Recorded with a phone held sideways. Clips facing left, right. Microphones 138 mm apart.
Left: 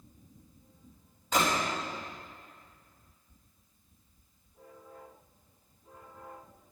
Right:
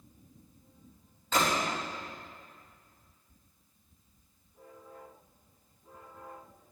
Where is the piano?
I don't hear a piano.